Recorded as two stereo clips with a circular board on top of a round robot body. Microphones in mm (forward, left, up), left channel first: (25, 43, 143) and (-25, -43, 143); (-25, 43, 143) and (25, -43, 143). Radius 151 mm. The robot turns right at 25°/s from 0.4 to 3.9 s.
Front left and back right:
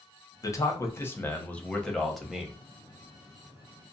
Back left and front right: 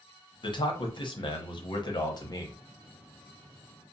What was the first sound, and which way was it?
A man speaking, 105° left.